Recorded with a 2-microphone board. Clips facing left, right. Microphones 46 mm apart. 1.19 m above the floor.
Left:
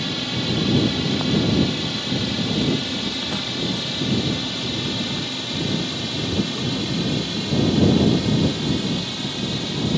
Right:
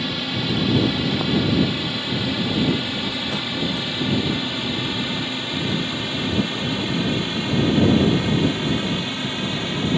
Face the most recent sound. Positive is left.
turn(degrees=-25)  # may be behind; listen again after turning